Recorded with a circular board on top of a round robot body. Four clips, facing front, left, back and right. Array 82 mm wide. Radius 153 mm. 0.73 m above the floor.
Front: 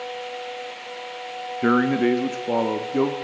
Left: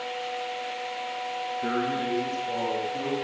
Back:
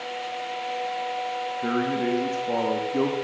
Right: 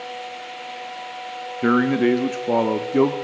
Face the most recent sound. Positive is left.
turn(degrees=-80)